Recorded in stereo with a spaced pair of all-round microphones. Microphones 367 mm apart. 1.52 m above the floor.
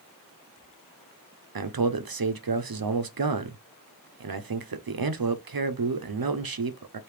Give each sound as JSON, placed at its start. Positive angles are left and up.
{"t": 1.6, "sound": "a man speaking", "side_deg": -70, "distance_m": 0.5}